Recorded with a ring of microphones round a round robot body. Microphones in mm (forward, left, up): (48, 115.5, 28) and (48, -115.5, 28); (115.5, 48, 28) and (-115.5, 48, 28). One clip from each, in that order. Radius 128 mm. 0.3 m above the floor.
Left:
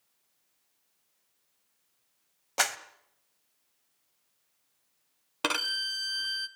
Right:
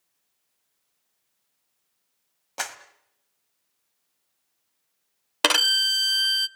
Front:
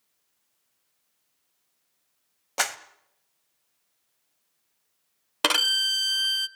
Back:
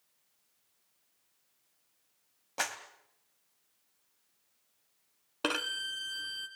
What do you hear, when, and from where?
2.6 s a clap: 25° left, 1.3 m
5.4 s a violin: 45° right, 0.6 m